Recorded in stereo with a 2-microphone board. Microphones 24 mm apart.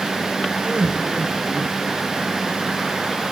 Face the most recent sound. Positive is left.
turn(degrees=-45)  # may be behind; listen again after turning